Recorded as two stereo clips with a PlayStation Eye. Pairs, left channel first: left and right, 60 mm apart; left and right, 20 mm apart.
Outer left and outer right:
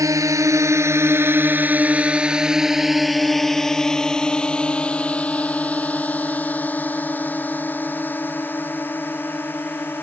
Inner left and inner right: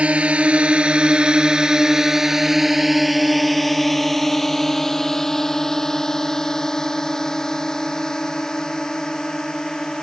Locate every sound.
0.0 s a drone: 70° right (ahead or behind); by 10.0 s 35° left (ahead or behind)